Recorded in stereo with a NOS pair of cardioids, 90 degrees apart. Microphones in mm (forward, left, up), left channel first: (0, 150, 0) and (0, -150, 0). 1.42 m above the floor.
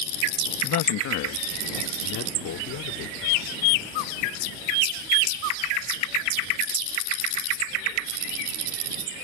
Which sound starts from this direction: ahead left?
A man speaking, at 0.6 s.